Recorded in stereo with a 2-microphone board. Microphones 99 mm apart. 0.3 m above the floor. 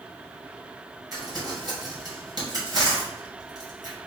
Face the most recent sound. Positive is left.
turn(degrees=-45)  # may be behind; listen again after turning